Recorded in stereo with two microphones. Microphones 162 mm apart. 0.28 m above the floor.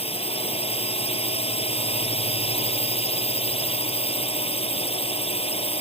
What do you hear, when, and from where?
0.0 s a drone: 40° left (ahead or behind)